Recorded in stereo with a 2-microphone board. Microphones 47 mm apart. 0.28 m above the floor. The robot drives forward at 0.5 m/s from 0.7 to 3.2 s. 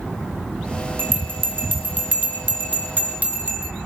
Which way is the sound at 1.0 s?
50° right (ahead or behind).